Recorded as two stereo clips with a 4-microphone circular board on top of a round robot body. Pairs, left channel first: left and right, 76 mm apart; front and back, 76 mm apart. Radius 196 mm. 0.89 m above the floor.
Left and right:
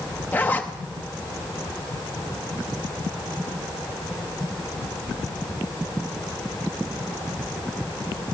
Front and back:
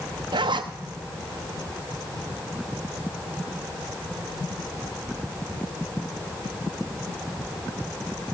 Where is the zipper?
160° left, 0.6 m.